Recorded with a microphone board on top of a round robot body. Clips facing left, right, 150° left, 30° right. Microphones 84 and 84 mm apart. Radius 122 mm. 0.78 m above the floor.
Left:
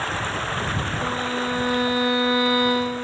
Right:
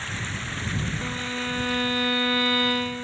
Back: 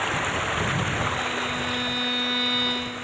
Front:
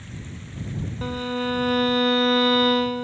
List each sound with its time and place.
0.0 s running water: 130° left
1.0 s a violin: 20° left